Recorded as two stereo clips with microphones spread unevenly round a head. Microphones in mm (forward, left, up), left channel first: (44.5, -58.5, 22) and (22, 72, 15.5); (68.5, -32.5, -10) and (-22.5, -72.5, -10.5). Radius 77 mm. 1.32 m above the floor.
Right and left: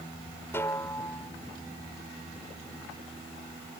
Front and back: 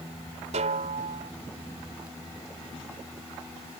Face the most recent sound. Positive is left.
turn(degrees=-155)